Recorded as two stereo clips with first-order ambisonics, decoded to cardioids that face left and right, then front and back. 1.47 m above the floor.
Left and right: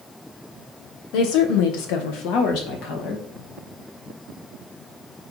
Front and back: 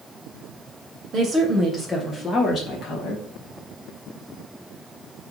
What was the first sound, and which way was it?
A woman speaking, 115° left.